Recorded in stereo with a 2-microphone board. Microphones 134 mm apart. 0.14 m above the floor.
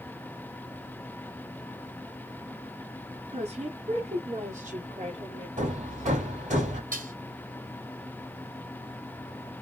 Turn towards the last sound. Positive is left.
turn(degrees=-75)  # may be behind; listen again after turning